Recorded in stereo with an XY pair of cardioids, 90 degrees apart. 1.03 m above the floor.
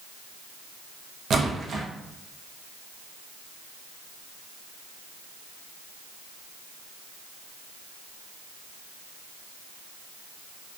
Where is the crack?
I don't hear a crack.